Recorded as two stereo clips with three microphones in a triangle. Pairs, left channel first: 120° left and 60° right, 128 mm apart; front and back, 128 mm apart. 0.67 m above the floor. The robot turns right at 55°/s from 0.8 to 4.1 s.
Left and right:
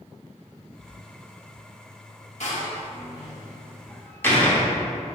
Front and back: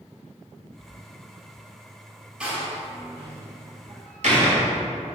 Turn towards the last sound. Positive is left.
turn(degrees=-170)